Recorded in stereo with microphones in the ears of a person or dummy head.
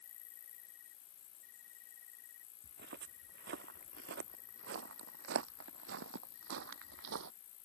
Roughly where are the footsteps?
Right.